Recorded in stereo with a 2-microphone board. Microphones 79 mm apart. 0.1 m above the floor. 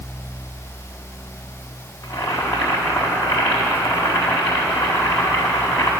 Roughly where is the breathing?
No breathing in this recording.